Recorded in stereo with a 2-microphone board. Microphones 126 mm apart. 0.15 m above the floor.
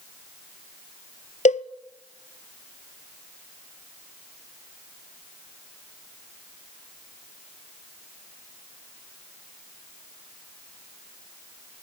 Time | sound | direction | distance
1.4 | a cowbell | 70° left (ahead or behind) | 0.7 m